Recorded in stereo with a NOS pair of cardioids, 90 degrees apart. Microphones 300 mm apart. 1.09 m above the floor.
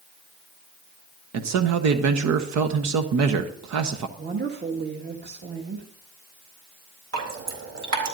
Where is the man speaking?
65° right, 1.1 m.